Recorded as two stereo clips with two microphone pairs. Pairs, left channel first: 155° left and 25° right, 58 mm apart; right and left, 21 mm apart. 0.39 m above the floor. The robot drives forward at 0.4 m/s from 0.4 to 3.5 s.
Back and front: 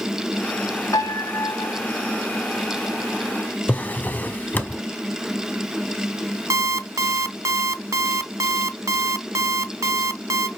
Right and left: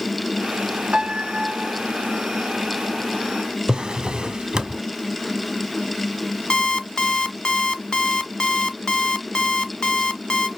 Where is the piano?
130° left, 0.6 m; by 1.7 s 145° left, 0.8 m.